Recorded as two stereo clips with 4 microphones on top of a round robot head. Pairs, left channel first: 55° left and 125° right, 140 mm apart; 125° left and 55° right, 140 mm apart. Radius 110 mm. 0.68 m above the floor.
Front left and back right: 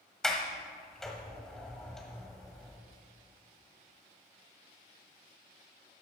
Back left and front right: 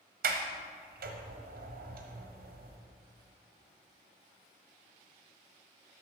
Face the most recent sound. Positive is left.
turn(degrees=-35)